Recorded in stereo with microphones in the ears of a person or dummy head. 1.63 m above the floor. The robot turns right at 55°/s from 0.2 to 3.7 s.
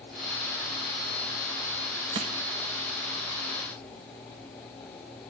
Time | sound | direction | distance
2.1 | crushing | 30° right (ahead or behind) | 1.2 m